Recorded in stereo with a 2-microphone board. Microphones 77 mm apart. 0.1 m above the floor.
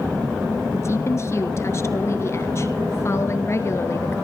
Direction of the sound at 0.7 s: 35° left (ahead or behind).